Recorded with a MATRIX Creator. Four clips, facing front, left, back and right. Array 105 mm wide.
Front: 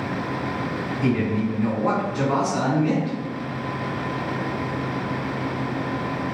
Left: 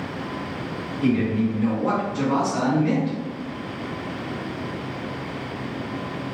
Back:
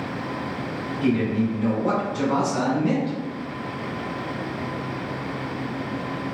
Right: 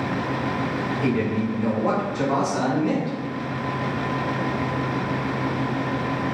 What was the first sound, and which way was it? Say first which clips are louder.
A man speaking: left 4 dB, back 1 dB; 30° right.